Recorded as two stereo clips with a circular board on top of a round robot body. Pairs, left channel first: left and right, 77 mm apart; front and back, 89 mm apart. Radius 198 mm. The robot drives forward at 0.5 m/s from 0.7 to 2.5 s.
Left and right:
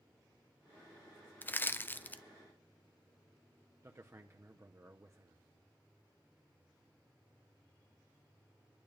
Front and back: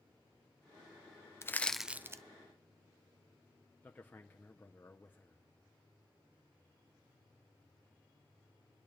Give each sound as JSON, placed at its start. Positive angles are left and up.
{"t": 1.4, "sound": "crushing", "azimuth_deg": 35, "distance_m": 0.5}
{"t": 3.8, "sound": "a man speaking", "azimuth_deg": -60, "distance_m": 0.8}